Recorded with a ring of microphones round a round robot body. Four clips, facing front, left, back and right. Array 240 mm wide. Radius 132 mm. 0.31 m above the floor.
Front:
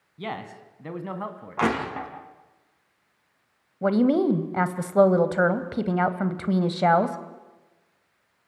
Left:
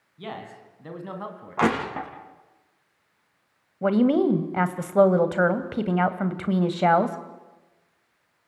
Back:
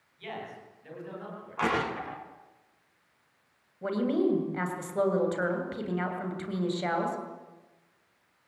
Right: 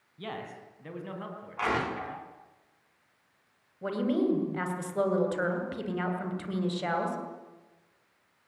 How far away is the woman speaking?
About 2.5 m.